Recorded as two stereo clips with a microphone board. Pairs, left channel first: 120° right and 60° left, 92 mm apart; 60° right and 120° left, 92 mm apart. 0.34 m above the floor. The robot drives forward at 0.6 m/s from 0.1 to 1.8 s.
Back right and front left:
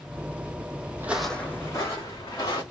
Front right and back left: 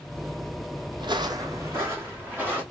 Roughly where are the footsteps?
Behind left.